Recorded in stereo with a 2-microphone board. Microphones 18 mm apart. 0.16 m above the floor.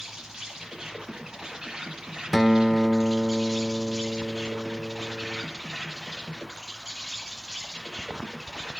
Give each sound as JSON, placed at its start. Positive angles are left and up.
{"t": 0.0, "sound": "an insect", "side_deg": -30, "distance_m": 8.0}
{"t": 2.3, "sound": "a guitar", "side_deg": 5, "distance_m": 0.5}